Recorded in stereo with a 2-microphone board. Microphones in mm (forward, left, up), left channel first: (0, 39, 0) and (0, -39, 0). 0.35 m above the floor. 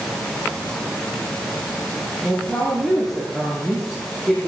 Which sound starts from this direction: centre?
A woman speaking, at 2.2 s.